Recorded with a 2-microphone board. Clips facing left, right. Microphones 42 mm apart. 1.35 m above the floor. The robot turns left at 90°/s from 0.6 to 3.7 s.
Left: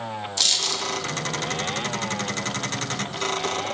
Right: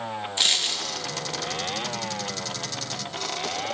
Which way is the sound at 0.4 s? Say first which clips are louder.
Right 1 dB; 30° right (ahead or behind).